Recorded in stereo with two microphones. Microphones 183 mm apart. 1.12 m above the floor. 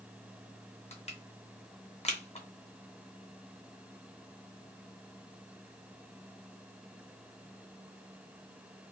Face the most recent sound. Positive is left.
turn(degrees=35)  # may be behind; listen again after turning